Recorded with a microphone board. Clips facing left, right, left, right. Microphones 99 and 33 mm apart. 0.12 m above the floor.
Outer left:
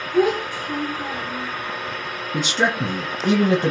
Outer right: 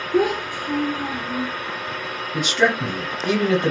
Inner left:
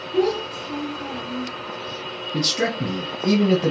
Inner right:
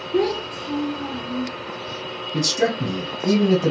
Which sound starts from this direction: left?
A man speaking, at 2.3 s.